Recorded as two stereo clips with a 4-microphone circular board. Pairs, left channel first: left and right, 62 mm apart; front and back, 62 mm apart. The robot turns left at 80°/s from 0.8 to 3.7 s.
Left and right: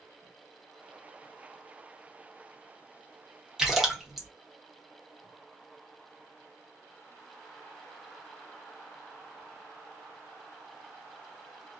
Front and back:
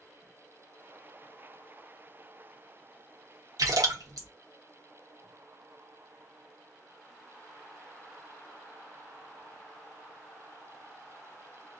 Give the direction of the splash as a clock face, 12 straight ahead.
6 o'clock.